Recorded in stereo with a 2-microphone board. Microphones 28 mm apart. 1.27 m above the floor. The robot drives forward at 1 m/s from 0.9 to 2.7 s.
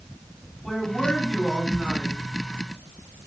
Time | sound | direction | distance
0.6 | a man speaking | 5° right (ahead or behind) | 7 m